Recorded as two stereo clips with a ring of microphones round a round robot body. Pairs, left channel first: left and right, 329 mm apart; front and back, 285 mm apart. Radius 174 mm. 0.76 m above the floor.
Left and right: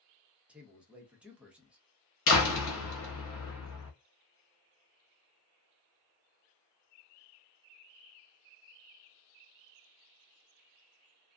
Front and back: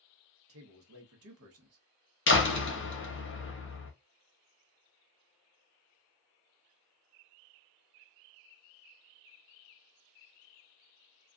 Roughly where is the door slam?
Ahead left.